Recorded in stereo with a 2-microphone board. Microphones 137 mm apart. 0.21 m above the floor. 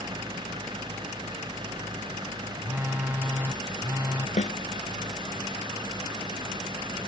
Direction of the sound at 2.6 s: 15° right (ahead or behind).